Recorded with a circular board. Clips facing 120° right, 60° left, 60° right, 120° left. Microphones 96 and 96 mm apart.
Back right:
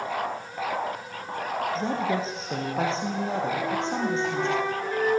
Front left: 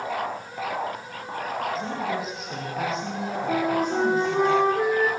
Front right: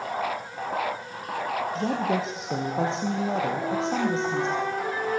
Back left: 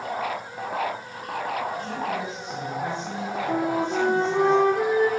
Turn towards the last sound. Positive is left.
turn(degrees=95)